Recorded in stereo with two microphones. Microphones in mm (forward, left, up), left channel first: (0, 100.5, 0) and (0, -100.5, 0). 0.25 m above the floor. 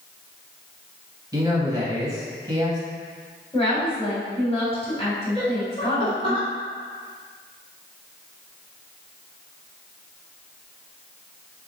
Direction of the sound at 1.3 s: 15° right (ahead or behind).